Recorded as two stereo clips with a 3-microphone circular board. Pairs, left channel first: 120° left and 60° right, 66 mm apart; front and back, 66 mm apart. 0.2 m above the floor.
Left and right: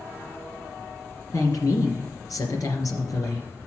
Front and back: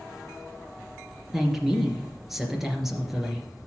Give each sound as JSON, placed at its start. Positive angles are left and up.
{"t": 1.3, "sound": "a woman speaking", "azimuth_deg": 95, "distance_m": 3.0}